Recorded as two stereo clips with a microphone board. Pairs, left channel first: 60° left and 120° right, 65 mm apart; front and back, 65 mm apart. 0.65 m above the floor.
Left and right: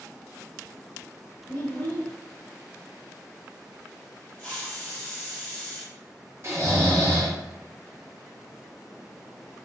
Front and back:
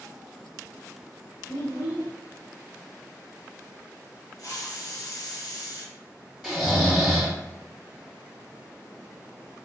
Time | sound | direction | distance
1.5 | a child speaking | straight ahead | 1.3 m
4.4 | a hiss | 10° right | 0.8 m
6.4 | snoring | 100° right | 1.3 m